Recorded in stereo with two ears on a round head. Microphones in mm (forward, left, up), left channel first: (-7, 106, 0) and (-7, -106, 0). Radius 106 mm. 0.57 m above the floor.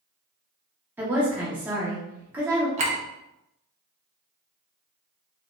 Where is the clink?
30° right (ahead or behind), 0.7 m.